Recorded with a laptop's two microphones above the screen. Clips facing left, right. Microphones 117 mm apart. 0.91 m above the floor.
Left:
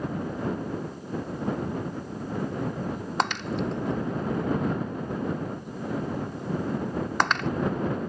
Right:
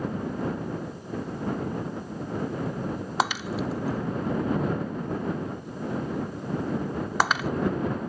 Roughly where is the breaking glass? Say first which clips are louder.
Even; centre.